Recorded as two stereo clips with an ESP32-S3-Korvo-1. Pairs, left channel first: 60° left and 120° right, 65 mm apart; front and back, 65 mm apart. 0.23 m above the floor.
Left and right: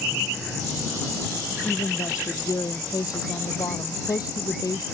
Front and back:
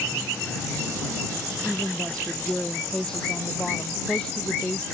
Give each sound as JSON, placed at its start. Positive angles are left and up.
{"t": 1.6, "sound": "a woman speaking", "azimuth_deg": 80}